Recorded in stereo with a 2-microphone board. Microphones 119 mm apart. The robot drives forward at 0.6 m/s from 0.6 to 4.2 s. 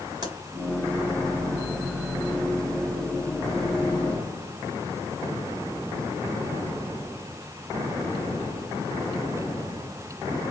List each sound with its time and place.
0.2 s a pop: 35° right (ahead or behind), 2.5 m